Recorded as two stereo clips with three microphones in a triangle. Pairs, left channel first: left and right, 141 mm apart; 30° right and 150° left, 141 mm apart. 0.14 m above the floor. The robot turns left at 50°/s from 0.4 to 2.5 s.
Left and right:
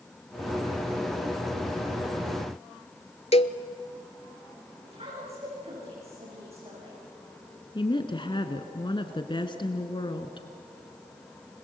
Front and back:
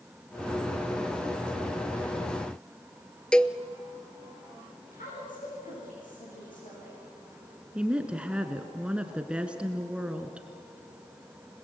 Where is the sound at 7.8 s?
75° left, 1.4 m.